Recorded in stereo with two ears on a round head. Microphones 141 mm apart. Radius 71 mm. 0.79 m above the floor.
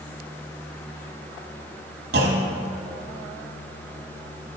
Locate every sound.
2.1 s a clunk: 70° right (ahead or behind), 1.4 m